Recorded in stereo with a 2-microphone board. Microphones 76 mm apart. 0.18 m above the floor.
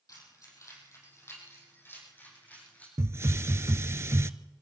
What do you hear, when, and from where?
0.1 s keys jangling: 55° left (ahead or behind), 5.5 m; by 2.9 s 20° left (ahead or behind), 7.5 m
3.0 s a hiss: 40° right (ahead or behind), 0.5 m